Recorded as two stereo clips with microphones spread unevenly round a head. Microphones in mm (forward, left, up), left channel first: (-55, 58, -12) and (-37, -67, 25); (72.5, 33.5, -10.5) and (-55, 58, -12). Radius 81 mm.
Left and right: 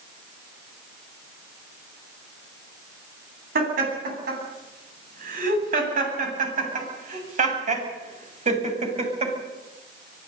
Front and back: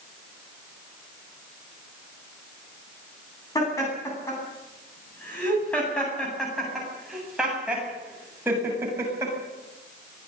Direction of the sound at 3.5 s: 85° right.